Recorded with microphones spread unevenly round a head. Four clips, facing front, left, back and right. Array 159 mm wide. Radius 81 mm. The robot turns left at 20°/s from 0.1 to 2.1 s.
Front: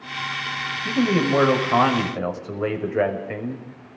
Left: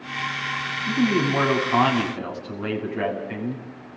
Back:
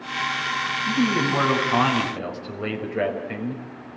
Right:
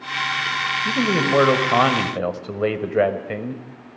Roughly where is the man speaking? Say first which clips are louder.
Even, front 3 dB; ahead right.